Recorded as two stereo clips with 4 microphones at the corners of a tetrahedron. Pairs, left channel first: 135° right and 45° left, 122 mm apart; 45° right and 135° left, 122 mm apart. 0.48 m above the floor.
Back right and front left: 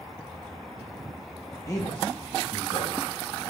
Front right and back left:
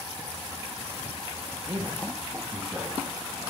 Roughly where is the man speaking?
Behind.